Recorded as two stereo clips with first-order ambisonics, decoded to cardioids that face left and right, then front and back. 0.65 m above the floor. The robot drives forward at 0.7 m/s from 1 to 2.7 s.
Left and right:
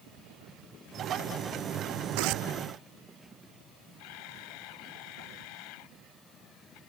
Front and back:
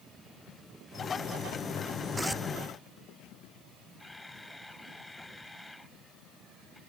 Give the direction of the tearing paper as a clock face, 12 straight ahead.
3 o'clock.